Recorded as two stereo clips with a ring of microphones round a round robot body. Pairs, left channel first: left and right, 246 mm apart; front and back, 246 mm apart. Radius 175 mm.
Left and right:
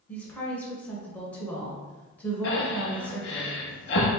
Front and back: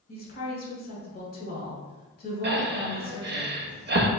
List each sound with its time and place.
0.1 s a woman speaking: 10° left, 1.4 m
2.4 s breathing: 135° left, 0.5 m